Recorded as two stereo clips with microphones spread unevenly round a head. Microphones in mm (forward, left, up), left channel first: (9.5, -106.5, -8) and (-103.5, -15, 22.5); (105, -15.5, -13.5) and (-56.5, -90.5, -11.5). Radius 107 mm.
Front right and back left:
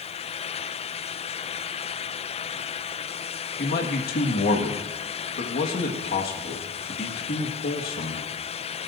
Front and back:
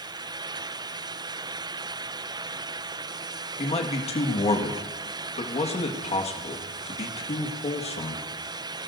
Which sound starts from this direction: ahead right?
A man speaking, at 3.6 s.